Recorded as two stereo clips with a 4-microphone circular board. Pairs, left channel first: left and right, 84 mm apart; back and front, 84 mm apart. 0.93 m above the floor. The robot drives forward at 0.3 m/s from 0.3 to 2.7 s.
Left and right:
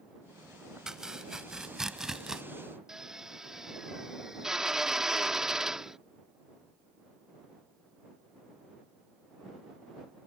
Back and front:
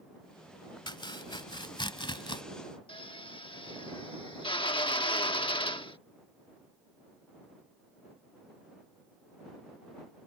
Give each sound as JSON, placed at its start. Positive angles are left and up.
{"t": 0.9, "sound": "chopping", "azimuth_deg": -175}
{"t": 2.9, "sound": "a drill", "azimuth_deg": -175}